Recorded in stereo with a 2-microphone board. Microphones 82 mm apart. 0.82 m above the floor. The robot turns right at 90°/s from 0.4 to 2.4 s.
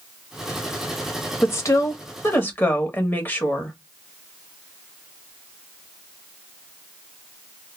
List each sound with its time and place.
1.4 s a woman speaking: 45° left, 0.8 m; by 3.8 s 135° left, 0.8 m